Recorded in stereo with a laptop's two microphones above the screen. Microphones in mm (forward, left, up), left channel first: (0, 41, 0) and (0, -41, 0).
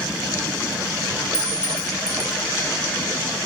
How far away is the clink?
About 1.0 m.